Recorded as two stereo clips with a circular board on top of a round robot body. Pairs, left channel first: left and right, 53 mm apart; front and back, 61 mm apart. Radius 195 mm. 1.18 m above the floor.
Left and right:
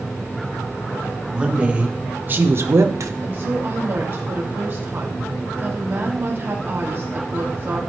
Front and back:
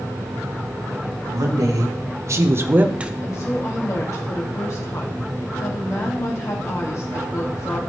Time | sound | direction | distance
1.3 | a woman speaking | 160° right | 1.8 m
3.2 | a woman speaking | 40° right | 2 m